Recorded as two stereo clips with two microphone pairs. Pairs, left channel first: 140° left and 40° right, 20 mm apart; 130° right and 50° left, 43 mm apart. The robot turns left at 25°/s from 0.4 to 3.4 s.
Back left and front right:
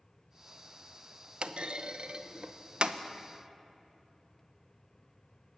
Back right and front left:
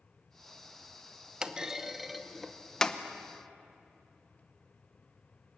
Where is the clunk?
25° right, 0.8 m; by 3.0 s 65° right, 0.8 m.